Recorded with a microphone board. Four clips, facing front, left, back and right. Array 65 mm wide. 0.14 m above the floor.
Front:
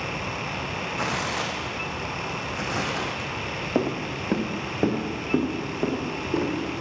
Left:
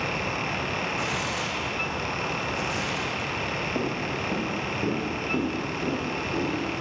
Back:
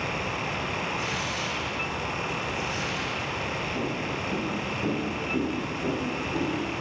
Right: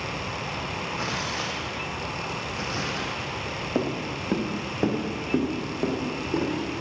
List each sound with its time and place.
1.0 s tearing paper: 10° right, 1.6 m
3.8 s footsteps: 20° right, 1.4 m; by 6.5 s 35° right, 4.5 m